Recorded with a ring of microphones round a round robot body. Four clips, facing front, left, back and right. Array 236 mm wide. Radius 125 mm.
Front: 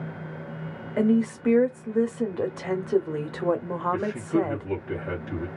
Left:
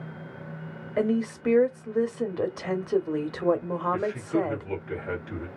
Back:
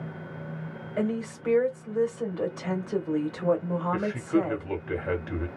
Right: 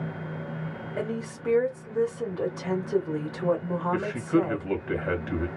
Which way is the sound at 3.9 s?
110° right.